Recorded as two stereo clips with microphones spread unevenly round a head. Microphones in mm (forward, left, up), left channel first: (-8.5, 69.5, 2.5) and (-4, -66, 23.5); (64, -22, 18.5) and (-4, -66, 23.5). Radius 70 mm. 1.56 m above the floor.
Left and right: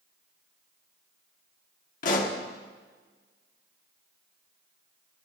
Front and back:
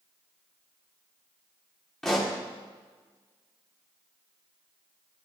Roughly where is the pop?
Behind left.